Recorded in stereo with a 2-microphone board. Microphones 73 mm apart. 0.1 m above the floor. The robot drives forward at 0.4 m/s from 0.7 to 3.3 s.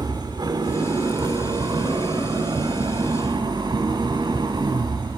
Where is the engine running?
80° right, 2 m; by 5.2 s 70° right (ahead or behind), 2 m.